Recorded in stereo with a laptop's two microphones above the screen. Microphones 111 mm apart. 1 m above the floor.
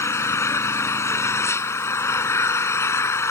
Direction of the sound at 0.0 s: 25° left (ahead or behind).